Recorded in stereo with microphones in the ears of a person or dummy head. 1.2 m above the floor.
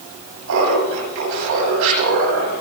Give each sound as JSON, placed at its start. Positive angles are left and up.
{"t": 0.5, "sound": "laughter", "side_deg": -80, "distance_m": 6.5}